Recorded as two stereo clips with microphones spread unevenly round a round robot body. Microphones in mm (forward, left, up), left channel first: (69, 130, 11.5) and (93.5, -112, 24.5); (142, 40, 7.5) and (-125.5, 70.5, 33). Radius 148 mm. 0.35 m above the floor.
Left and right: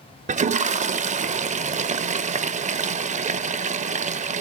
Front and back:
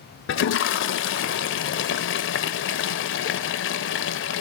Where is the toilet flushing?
25° right, 0.7 m.